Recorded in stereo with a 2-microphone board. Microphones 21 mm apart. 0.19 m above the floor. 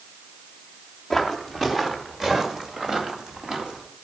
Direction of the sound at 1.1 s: Centre (ahead or behind).